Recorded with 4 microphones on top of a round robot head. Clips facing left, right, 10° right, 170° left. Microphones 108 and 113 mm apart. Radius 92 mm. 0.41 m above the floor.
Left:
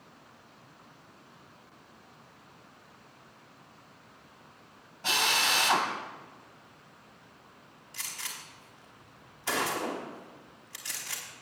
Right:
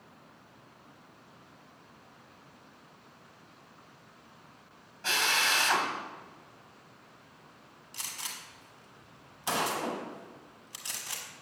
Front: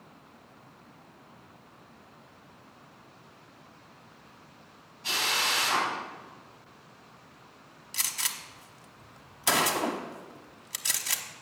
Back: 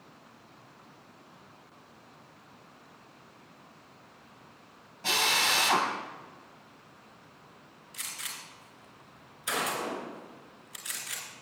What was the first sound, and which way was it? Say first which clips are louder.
A drill: left 1 dB, back 2 dB; 165° left.